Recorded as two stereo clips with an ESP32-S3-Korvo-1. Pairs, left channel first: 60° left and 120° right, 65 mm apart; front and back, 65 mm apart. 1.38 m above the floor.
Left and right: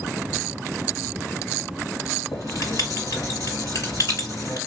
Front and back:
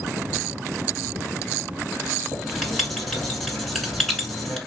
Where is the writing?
90° left, 3 m.